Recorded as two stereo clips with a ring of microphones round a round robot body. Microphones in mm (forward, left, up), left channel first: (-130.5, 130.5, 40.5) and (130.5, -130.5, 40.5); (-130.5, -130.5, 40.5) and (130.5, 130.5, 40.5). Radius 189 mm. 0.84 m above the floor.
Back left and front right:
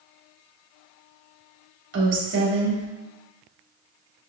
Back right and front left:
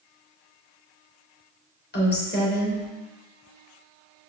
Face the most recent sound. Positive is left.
turn(degrees=-85)